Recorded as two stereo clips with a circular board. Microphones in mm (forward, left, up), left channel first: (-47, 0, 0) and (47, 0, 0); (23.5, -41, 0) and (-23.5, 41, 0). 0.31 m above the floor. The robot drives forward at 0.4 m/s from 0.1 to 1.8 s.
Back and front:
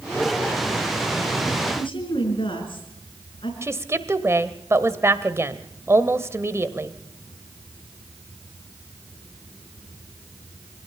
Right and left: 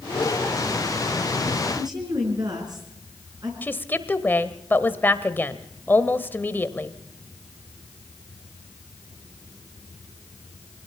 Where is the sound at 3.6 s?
15° right, 1.2 m.